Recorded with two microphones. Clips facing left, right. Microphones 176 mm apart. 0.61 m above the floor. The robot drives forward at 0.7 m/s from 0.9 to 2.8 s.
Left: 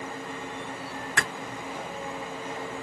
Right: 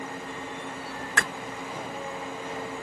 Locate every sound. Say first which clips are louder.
1.2 s a clap: right 1 dB; 15° left (ahead or behind), 2.5 m